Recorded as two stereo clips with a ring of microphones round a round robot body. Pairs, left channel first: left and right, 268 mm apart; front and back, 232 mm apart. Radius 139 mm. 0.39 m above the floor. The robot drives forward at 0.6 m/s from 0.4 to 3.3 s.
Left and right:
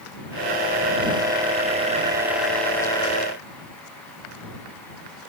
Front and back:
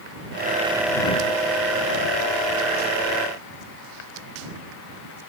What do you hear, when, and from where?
Only background noise.